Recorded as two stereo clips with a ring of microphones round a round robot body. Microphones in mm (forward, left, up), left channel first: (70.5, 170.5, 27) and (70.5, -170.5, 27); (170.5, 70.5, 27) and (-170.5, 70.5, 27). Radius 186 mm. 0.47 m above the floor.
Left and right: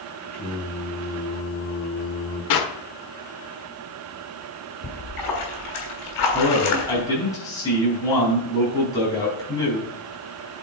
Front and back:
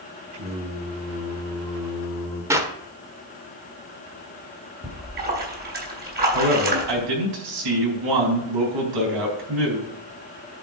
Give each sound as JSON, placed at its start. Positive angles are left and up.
{"t": 0.3, "sound": "singing", "azimuth_deg": 155, "distance_m": 4.5}
{"t": 2.5, "sound": "a clap", "azimuth_deg": 100, "distance_m": 1.3}
{"t": 4.8, "sound": "a splash", "azimuth_deg": 120, "distance_m": 3.0}
{"t": 6.3, "sound": "a man speaking", "azimuth_deg": 170, "distance_m": 4.0}